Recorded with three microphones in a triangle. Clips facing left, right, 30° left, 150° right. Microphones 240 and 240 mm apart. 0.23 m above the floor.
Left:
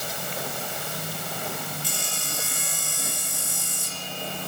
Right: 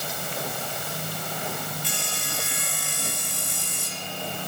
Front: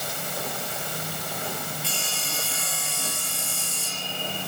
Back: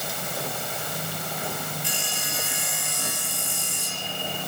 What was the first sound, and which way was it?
Sawing, 75° right.